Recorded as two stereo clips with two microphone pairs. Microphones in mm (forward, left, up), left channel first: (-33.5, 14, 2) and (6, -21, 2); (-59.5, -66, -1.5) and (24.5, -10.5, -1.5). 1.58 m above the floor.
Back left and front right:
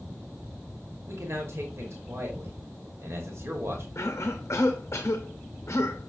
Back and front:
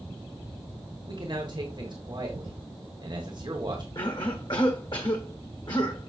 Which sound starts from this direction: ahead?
A man speaking, at 1.1 s.